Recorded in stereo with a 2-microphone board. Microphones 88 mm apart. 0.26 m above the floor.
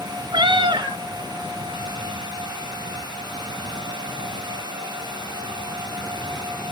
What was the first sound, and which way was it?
A cat meowing, 70° right (ahead or behind).